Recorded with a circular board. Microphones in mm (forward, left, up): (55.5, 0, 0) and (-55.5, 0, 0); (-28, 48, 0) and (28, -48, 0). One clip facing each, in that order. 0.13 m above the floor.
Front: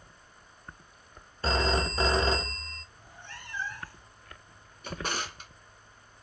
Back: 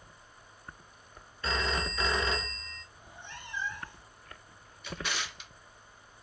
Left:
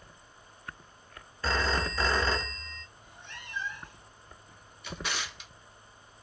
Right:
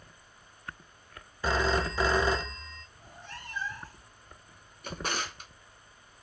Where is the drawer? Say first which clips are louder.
Front 3 dB, right 3 dB; 30° right, 0.6 m.